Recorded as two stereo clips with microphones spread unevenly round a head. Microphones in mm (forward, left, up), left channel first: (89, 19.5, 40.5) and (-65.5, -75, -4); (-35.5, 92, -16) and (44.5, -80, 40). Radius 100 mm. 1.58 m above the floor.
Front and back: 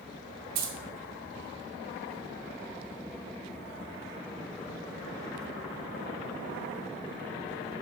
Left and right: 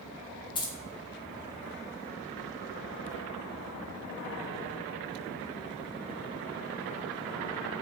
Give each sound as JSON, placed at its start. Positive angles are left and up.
{"t": 0.6, "sound": "keys jangling", "azimuth_deg": -170, "distance_m": 0.6}